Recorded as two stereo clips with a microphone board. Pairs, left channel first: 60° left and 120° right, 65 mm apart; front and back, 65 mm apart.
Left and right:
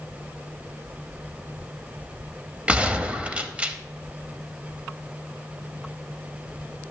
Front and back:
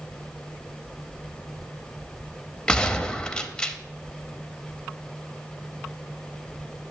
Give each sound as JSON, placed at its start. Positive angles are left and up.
{"t": 2.7, "sound": "a gunshot", "azimuth_deg": -70, "distance_m": 0.5}